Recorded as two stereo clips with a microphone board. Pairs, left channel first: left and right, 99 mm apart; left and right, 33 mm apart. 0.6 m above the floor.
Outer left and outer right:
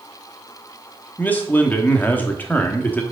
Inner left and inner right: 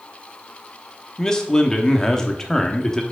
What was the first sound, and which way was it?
A man speaking, 20° left (ahead or behind).